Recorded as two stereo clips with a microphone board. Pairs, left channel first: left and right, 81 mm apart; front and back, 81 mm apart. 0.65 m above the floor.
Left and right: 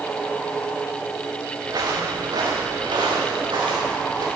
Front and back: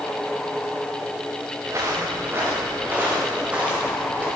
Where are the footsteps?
130° right, 3.5 m; by 4.3 s 105° right, 7 m.